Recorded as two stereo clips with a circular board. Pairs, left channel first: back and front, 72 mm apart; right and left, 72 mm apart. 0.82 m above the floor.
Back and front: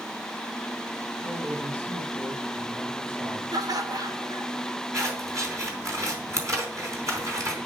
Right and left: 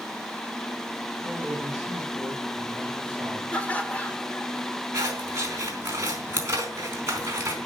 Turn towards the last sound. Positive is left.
turn(degrees=40)